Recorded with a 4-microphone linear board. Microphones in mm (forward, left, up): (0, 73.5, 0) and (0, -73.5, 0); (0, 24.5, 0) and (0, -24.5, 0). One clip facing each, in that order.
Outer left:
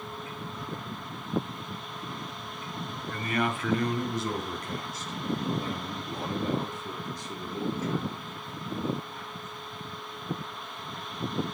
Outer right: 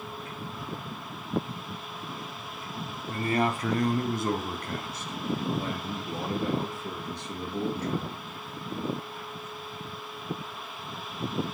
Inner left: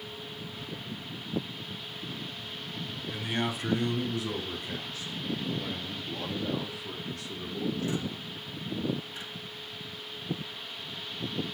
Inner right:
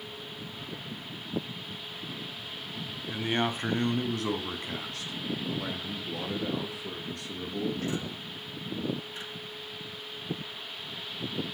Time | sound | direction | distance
3.1 | a man speaking | 25° right (ahead or behind) | 1.6 m